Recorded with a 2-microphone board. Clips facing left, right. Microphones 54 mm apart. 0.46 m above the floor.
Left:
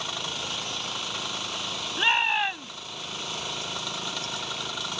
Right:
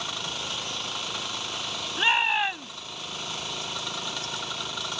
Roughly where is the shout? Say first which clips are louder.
Even; centre.